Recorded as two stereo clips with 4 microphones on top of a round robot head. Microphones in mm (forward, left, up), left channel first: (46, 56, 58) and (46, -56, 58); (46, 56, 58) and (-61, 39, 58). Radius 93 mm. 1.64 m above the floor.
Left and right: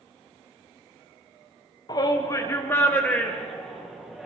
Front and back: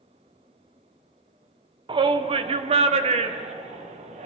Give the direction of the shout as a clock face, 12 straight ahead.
7 o'clock.